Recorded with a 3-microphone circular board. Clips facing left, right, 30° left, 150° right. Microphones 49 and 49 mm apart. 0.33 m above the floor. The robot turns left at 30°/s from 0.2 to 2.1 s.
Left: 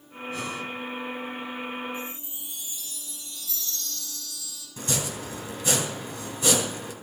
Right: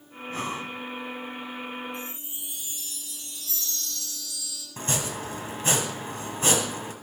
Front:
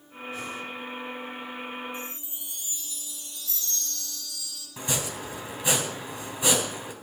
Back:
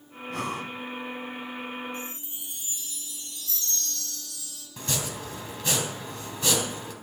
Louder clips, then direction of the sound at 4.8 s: Right 1 dB, front 1 dB; 45° right.